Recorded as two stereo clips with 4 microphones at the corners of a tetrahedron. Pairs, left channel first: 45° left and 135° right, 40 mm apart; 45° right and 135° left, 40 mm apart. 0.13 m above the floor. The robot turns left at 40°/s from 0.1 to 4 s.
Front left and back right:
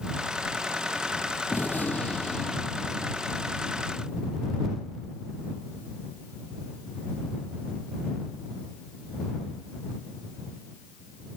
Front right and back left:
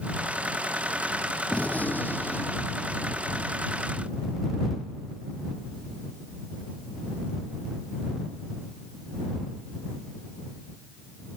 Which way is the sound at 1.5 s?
10° left.